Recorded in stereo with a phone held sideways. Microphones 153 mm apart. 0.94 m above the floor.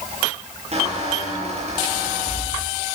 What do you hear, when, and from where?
0.7 s a squeak: 45° right (ahead or behind), 8 m